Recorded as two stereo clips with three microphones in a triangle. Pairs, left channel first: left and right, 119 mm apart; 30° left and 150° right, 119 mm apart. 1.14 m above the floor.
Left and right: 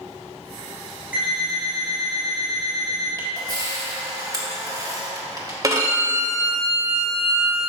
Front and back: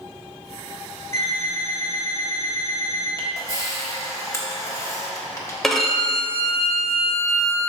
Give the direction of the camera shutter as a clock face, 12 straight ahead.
1 o'clock.